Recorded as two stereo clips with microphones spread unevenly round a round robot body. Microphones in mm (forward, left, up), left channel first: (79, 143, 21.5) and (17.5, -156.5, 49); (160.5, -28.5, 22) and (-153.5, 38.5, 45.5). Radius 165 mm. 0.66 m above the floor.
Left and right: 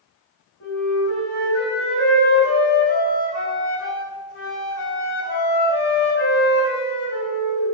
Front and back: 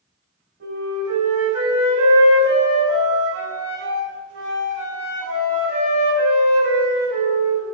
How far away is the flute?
About 4 m.